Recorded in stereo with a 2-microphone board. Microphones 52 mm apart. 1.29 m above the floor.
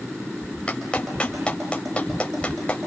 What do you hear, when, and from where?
0.7 s a clap: 20° left (ahead or behind), 5 m